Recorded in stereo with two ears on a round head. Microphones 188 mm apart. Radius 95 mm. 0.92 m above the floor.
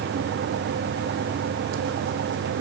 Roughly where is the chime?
I don't hear a chime.